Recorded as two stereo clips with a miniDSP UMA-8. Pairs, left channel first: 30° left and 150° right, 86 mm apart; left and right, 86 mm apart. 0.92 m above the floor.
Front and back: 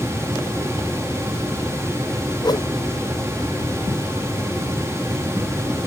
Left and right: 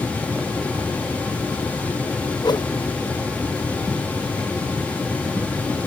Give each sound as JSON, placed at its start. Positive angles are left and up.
{"t": 2.4, "sound": "a whoosh", "azimuth_deg": 60}